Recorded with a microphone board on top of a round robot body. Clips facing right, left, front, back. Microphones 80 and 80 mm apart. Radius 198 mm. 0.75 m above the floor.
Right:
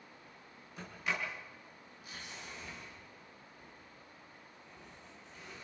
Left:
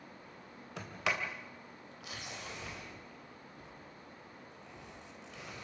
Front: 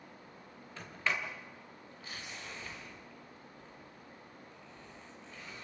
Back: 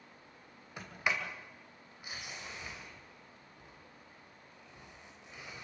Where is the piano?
I don't hear a piano.